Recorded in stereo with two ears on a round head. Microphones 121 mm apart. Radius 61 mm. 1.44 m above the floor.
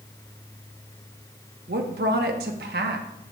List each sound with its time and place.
1.7 s a woman speaking: 80° right, 1.3 m